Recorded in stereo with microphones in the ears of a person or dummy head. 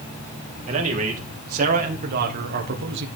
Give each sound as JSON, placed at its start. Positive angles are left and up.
{"t": 0.7, "sound": "a man speaking", "side_deg": -40, "distance_m": 2.5}